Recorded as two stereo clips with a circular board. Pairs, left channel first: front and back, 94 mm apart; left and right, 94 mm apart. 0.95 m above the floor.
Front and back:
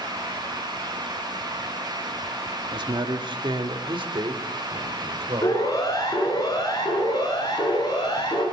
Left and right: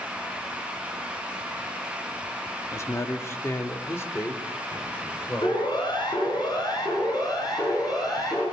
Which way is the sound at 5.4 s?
55° left.